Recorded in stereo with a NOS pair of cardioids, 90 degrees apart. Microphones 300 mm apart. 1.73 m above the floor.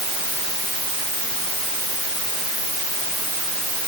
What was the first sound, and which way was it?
Only background noise.